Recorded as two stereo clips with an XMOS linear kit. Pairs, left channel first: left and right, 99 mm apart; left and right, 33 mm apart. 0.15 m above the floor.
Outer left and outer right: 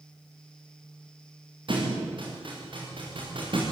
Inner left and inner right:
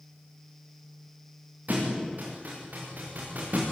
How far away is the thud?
About 8 m.